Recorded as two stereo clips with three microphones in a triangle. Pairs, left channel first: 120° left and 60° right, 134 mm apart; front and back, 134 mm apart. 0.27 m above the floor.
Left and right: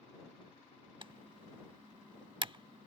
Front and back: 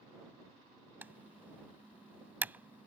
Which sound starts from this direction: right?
Typing on a keyboard, at 1.0 s.